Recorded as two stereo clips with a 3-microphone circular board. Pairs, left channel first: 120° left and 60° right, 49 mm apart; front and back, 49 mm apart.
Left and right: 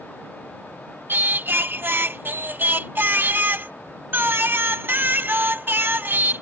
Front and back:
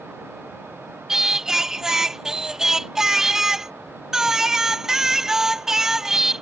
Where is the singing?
100° right.